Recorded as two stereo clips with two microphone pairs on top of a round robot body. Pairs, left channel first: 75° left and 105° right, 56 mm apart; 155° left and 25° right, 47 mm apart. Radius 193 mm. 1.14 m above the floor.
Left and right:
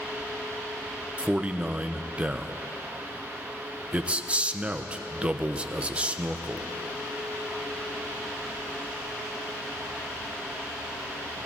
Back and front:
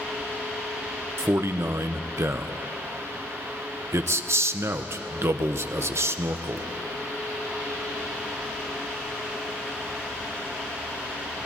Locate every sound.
1.2 s a man speaking: 40° right, 0.7 m